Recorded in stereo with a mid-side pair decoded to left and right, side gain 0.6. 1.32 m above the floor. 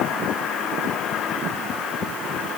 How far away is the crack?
I don't hear a crack.